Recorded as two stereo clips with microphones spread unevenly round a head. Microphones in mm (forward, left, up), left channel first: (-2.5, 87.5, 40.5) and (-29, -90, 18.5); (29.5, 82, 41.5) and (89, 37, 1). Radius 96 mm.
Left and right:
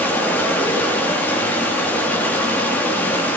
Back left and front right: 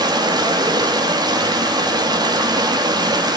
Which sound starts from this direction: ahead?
Running water, at 0.0 s.